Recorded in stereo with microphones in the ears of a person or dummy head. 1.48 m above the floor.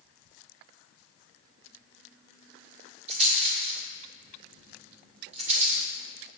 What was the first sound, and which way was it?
A rattle, 45° right (ahead or behind).